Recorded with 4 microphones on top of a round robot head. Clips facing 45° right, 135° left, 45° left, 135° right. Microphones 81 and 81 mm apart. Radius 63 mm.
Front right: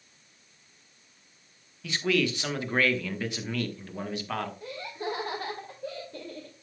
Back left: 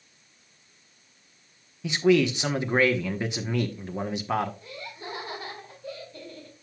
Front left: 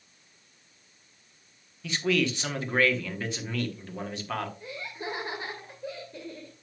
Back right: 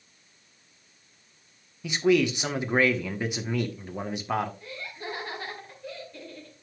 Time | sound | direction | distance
1.8 | a man speaking | 175° left | 1.0 m
4.6 | laughter | 15° right | 2.5 m